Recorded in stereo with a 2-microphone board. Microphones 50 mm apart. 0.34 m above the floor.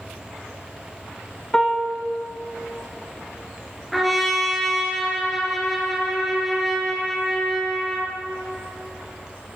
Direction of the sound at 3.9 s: 5° left (ahead or behind).